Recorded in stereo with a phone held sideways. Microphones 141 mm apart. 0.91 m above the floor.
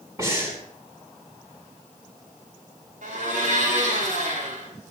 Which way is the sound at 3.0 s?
75° right (ahead or behind).